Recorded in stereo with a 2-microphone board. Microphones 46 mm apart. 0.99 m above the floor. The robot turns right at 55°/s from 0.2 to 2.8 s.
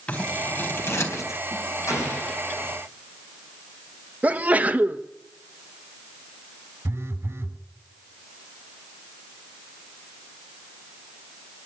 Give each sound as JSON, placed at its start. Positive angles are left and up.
{"t": 0.1, "sound": "scissors", "side_deg": 30, "distance_m": 3.5}
{"t": 1.9, "sound": "an explosion", "azimuth_deg": 95, "distance_m": 8.5}
{"t": 4.2, "sound": "a sneeze", "side_deg": -35, "distance_m": 1.2}
{"t": 6.8, "sound": "a phone buzzing", "side_deg": -55, "distance_m": 1.8}